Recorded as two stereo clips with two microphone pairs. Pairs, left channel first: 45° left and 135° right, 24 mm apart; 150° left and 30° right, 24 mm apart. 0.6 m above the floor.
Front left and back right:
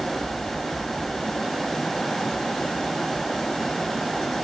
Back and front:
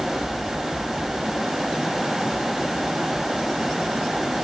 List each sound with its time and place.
Only background noise.